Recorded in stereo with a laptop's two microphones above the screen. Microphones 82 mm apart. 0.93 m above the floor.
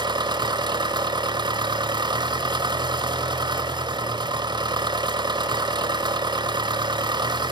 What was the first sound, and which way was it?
An engine running, 65° right (ahead or behind).